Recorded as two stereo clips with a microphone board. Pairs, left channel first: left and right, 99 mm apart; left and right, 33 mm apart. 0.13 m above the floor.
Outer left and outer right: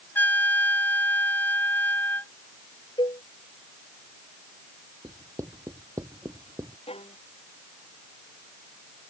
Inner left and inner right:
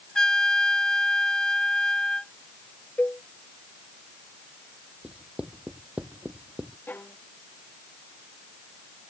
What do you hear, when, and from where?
0.1 s a trumpet: 20° left (ahead or behind)
3.0 s a cowbell: 55° left (ahead or behind)
5.0 s writing: 35° right (ahead or behind)
6.9 s a violin: 85° left